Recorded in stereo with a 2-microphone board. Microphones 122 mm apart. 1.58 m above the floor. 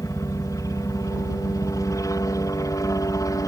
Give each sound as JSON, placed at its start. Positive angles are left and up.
{"t": 0.0, "sound": "a helicopter", "side_deg": 30}